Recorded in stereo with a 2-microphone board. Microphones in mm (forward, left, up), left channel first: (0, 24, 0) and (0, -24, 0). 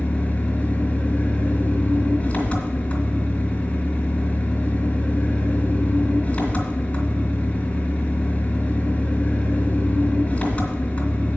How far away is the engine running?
About 3 m.